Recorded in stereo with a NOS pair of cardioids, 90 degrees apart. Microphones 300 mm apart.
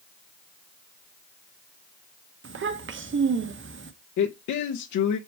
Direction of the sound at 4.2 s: 70° left.